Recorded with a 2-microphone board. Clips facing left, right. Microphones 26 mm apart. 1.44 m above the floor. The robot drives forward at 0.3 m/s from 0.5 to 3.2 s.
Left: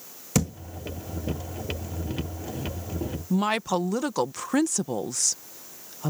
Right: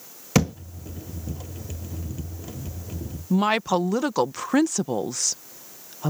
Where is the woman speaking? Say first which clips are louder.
Right 4 dB; 10° right (ahead or behind).